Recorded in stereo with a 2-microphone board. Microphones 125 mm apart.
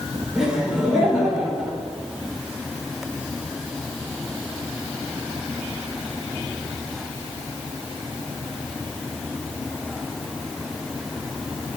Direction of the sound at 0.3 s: 5° right (ahead or behind).